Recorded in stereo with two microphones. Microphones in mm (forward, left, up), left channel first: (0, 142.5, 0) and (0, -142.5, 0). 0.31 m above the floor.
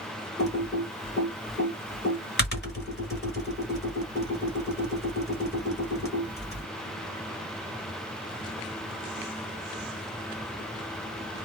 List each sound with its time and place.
0.4 s typing on a keyboard: 35° left (ahead or behind), 1.5 m